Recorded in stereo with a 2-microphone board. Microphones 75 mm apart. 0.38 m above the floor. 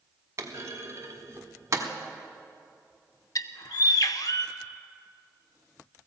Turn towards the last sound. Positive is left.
turn(degrees=60)  # may be behind; listen again after turning